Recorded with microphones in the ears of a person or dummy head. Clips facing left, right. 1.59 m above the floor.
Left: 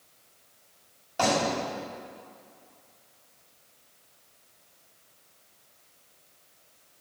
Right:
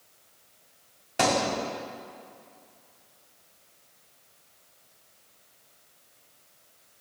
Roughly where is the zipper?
No zipper in this recording.